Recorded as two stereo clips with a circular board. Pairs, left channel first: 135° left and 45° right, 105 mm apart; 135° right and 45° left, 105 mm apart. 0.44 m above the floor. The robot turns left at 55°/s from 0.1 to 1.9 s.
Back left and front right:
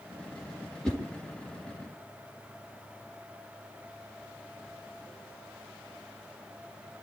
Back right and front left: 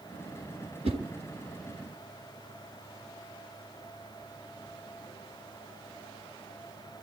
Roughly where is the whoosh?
Ahead left.